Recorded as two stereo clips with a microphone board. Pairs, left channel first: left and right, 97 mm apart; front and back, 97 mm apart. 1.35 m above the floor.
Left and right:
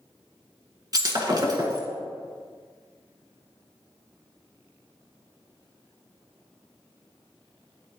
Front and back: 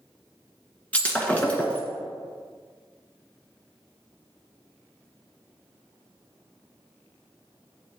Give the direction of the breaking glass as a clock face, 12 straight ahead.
2 o'clock.